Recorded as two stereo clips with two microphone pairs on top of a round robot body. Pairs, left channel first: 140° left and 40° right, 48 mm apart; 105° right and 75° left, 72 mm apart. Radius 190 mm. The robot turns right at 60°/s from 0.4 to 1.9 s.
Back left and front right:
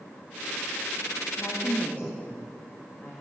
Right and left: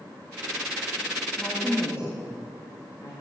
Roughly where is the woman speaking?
Behind.